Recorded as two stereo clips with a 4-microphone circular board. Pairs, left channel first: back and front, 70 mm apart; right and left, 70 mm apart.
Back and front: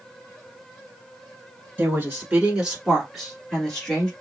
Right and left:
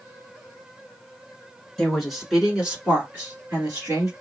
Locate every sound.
1.8 s a woman speaking: 5° right, 1.4 m; by 4.1 s 110° left, 1.6 m